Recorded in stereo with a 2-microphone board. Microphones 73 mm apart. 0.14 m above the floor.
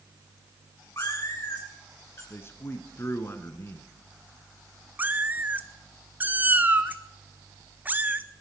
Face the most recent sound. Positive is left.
turn(degrees=-25)  # may be behind; listen again after turning